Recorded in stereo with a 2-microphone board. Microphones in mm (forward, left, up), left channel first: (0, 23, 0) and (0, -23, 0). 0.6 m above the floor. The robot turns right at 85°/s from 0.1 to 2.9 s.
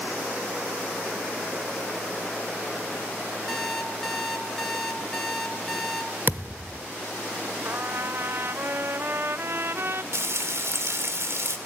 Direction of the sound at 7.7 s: 55° right (ahead or behind).